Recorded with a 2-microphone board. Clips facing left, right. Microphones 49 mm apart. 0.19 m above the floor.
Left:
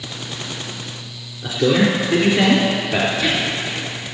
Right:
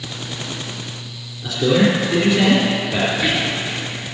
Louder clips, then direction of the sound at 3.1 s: Even; 20° right (ahead or behind).